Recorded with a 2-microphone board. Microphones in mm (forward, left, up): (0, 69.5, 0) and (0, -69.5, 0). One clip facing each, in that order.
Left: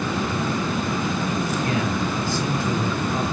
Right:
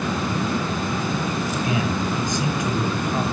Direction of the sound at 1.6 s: 15° right (ahead or behind).